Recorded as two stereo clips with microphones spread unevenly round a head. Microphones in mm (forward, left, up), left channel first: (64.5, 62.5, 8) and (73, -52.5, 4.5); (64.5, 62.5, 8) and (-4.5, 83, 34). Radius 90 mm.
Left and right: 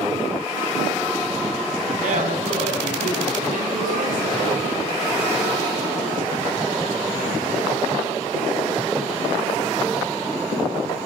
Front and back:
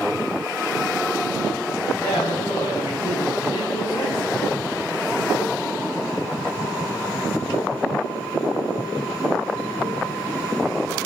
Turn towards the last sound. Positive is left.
turn(degrees=-90)